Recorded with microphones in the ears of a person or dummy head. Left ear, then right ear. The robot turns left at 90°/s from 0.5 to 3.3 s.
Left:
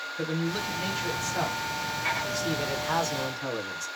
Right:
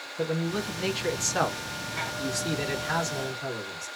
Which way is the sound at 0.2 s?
15° left.